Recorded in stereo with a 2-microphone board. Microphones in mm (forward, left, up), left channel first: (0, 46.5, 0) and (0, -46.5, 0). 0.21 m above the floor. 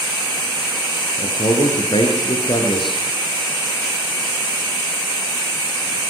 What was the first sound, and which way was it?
A man speaking, 65° left (ahead or behind).